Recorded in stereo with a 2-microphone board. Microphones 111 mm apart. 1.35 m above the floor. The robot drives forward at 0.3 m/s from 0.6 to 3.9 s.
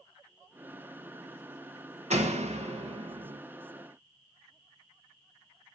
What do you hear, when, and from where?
2.1 s a door slam: 85° right, 1.2 m; by 3.4 s 65° right (ahead or behind), 1.3 m